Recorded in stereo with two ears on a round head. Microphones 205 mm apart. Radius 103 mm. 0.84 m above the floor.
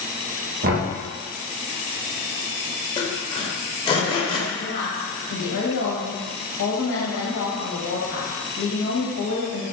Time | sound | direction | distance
0.6 | knocking | 40° right (ahead or behind) | 0.7 m
3.0 | sawing | 20° left (ahead or behind) | 0.6 m
4.5 | a woman speaking | 50° left (ahead or behind) | 1.1 m